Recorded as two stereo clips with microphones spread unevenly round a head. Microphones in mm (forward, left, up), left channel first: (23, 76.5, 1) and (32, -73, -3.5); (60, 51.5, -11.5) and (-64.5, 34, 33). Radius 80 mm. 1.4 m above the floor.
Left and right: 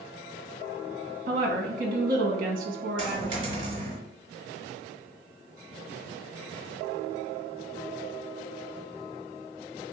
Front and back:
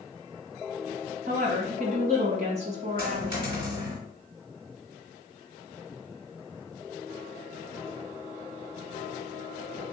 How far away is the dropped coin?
About 2.0 m.